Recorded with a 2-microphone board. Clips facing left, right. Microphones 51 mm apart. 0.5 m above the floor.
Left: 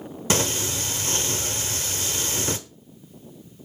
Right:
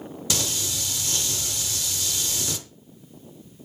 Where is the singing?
35° left (ahead or behind), 0.8 m.